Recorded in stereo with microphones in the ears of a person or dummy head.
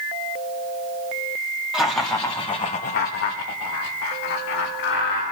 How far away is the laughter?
About 1.6 m.